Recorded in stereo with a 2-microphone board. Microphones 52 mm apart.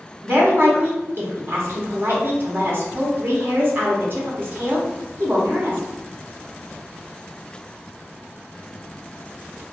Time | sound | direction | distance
0.2 | a woman speaking | 50° right (ahead or behind) | 1.0 m